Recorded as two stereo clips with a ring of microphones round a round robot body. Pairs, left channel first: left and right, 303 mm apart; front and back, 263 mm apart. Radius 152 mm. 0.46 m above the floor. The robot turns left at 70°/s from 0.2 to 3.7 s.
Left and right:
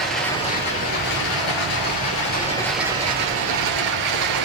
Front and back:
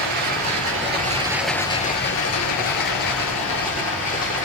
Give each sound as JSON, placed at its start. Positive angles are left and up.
{"t": 0.0, "sound": "running water", "azimuth_deg": 180, "distance_m": 3.5}